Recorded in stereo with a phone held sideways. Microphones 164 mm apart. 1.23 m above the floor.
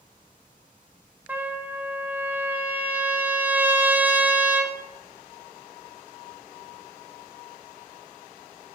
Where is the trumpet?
10° right (ahead or behind), 1.7 m.